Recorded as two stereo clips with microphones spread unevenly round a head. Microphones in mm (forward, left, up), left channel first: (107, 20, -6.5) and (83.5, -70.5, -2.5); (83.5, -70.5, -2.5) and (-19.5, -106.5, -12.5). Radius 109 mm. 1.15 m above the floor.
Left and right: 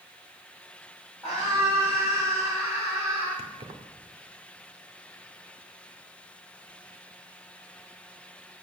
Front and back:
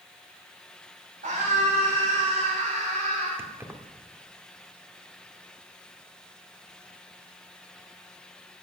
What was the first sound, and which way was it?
A scream, 170° left.